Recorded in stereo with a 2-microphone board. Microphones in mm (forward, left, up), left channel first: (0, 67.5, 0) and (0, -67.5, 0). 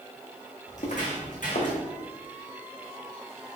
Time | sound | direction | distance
0.7 | footsteps | 65° left (ahead or behind) | 2.5 m